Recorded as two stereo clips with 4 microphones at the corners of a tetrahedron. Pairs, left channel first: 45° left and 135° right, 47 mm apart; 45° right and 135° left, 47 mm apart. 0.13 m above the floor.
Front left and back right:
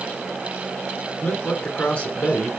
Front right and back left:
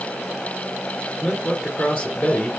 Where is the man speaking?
5° right, 2 m.